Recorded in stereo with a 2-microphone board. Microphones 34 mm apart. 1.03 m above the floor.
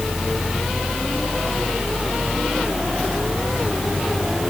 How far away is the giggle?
I don't hear a giggle.